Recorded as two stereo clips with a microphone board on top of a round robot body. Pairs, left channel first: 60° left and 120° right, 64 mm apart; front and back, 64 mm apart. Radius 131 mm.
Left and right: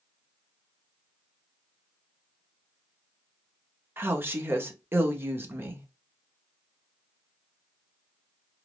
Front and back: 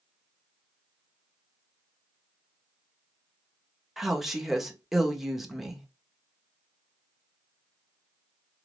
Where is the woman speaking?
95° right, 1.2 m.